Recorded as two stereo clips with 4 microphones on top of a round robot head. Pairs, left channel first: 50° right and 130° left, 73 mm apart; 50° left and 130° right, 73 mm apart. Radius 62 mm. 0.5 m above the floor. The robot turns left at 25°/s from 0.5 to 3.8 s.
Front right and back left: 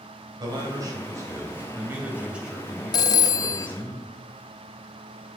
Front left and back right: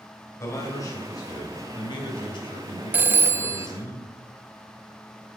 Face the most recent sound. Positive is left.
turn(degrees=-90)